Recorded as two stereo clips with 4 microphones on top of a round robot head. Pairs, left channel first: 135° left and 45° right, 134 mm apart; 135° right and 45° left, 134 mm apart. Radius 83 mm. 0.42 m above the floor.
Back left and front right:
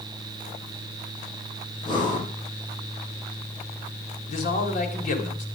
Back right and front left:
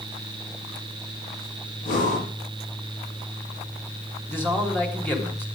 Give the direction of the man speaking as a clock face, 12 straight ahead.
7 o'clock.